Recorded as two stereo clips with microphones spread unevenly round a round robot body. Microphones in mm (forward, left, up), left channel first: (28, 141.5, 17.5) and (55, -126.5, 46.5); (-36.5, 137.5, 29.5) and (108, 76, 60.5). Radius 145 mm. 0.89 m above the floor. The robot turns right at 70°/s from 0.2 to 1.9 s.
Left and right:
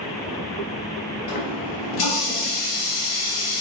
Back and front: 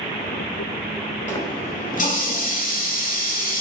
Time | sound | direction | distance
1.3 | a running tap | 80° left | 3 m